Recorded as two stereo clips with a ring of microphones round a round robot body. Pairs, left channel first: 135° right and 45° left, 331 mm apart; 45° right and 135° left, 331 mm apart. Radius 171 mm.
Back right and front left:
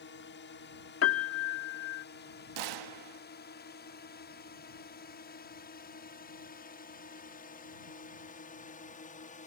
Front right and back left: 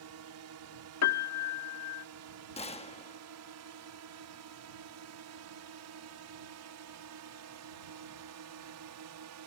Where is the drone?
170° left; by 9.5 s 160° left.